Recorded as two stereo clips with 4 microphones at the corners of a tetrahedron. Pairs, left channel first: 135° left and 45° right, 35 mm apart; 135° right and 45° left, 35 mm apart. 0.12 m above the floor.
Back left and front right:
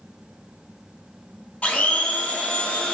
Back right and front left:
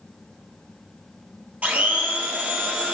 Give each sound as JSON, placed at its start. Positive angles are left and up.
{"t": 1.6, "sound": "a blender", "azimuth_deg": 90, "distance_m": 0.9}